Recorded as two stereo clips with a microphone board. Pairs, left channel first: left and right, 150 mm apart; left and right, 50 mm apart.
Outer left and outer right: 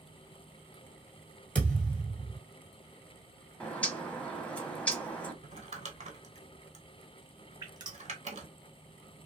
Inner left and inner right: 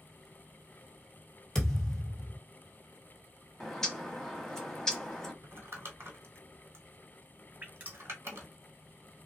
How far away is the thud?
About 1.7 m.